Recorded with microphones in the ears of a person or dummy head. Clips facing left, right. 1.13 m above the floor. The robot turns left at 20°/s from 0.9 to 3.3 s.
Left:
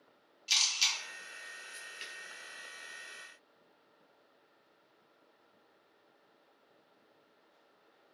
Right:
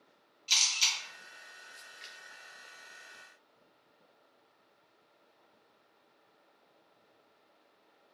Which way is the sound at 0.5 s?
10° left (ahead or behind).